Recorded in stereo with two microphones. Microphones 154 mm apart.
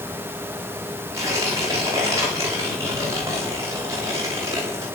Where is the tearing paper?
20° right (ahead or behind), 8 m.